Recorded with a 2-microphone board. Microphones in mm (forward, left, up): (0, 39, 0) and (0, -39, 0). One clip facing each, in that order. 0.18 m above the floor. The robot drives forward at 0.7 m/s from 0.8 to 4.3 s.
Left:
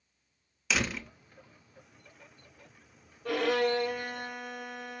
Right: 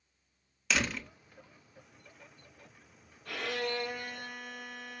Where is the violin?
65° left (ahead or behind), 1.8 m; by 5.0 s 50° left (ahead or behind), 2 m.